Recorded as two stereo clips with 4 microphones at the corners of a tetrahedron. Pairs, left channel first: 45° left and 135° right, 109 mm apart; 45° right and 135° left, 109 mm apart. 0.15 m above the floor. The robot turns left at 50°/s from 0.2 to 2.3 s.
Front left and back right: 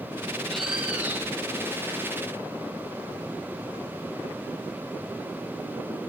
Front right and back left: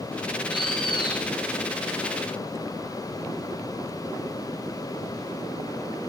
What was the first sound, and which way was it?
A bird, 35° right.